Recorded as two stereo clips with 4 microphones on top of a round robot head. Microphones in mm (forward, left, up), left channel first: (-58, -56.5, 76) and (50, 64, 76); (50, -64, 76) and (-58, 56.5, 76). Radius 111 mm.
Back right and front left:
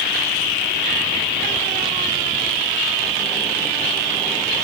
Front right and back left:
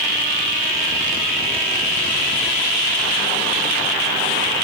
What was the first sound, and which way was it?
Only background noise.